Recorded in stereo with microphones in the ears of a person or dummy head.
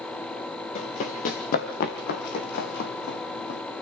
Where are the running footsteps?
45° left (ahead or behind), 3 m; by 3.6 s 65° left (ahead or behind), 3 m.